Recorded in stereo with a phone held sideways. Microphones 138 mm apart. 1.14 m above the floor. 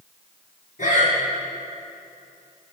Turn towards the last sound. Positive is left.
turn(degrees=65)  # may be behind; listen again after turning